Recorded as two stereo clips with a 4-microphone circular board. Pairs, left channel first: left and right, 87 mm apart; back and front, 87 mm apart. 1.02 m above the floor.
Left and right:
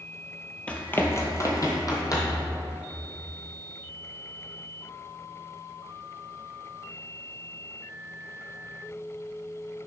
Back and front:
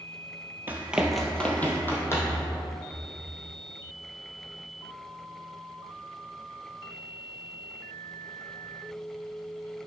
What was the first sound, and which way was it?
Running footsteps, 30° left.